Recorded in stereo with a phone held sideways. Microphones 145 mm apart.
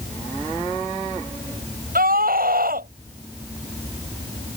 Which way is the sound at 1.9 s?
85° right.